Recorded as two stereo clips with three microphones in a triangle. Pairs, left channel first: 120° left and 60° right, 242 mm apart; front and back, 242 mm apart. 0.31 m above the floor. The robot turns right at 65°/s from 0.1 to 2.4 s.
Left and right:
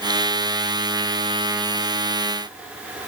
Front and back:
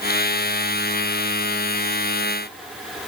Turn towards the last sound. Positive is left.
No sound to turn to.